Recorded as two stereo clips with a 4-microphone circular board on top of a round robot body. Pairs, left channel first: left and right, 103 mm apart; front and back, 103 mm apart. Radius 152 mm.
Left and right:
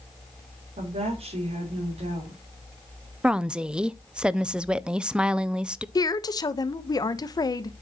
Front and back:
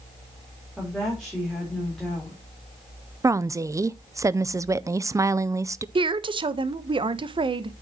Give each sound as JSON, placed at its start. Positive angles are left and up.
{"t": 0.8, "sound": "a woman speaking", "azimuth_deg": -90, "distance_m": 3.5}
{"t": 3.2, "sound": "a woman speaking", "azimuth_deg": -165, "distance_m": 0.6}
{"t": 6.0, "sound": "a woman speaking", "azimuth_deg": 140, "distance_m": 0.9}